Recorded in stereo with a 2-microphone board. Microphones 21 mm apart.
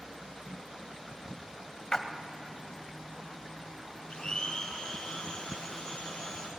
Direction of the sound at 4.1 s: 45° left (ahead or behind).